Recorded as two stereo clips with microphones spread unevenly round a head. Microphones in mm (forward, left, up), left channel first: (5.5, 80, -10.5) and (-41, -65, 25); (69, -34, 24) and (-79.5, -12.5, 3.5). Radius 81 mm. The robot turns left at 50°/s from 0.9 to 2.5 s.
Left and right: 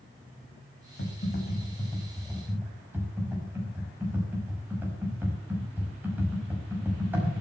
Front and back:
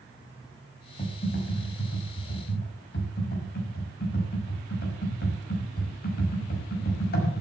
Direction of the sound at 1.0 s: 45° left.